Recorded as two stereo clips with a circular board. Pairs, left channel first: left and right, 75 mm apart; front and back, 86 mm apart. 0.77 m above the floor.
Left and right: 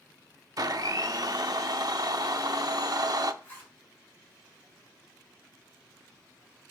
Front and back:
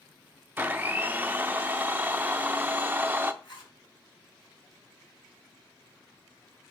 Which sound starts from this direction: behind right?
A blender, at 0.6 s.